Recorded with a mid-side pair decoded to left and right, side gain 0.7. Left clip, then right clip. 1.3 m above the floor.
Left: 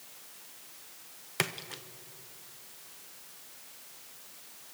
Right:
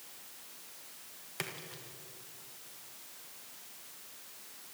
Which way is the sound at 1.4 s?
40° left.